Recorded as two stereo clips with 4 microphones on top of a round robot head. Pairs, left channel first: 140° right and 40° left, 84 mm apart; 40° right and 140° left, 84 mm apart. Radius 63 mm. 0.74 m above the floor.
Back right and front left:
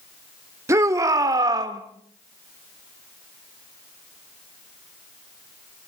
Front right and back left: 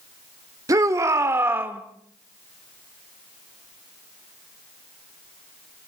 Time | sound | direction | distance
0.7 | a shout | 95° left | 2.5 m